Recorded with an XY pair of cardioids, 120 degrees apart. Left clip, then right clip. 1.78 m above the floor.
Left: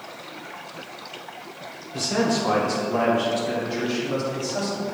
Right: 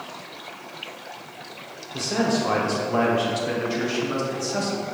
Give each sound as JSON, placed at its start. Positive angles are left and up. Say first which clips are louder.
{"t": 1.9, "sound": "a man speaking", "louder": "left 1 dB", "azimuth_deg": 5, "distance_m": 1.1}